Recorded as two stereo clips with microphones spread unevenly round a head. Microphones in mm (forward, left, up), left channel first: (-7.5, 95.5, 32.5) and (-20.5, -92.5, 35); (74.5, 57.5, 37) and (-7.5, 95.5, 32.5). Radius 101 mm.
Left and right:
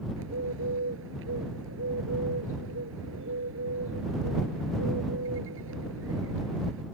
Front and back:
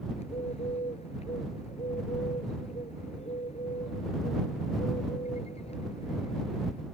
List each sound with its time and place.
0.2 s a bird: 65° right